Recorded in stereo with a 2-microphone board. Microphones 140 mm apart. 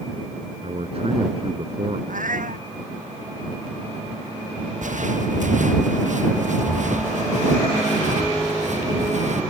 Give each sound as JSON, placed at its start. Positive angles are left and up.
{"t": 0.6, "sound": "a man speaking", "side_deg": -50}
{"t": 2.1, "sound": "a cat meowing", "side_deg": -80}
{"t": 4.8, "sound": "footsteps", "side_deg": -70}